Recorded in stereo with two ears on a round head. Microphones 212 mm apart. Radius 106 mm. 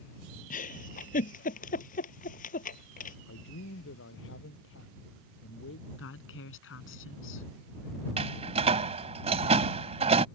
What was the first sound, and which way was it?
A giggle, 35° left (ahead or behind).